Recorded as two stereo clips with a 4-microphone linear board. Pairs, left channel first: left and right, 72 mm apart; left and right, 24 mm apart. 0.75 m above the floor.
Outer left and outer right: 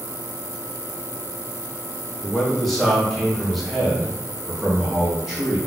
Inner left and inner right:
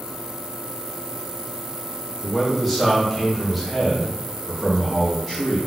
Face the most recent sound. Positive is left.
turn(degrees=-5)  # may be behind; listen again after turning